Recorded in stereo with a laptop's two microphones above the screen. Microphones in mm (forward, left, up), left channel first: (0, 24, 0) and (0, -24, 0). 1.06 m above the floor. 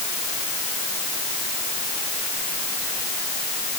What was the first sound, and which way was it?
Only background noise.